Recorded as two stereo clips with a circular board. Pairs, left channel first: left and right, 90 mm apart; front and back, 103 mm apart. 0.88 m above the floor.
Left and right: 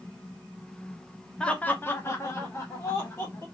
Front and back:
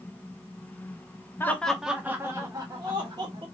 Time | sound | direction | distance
1.4 | laughter | 25° left | 0.6 m